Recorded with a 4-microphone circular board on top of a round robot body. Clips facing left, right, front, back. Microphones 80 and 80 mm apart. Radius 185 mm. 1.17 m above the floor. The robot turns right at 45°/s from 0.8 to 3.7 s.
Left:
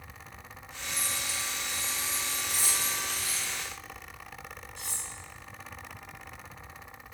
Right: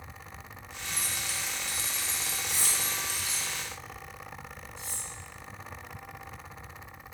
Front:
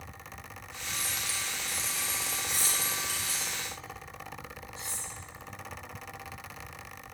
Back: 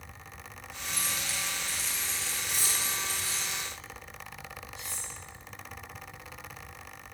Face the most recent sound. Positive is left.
turn(degrees=60)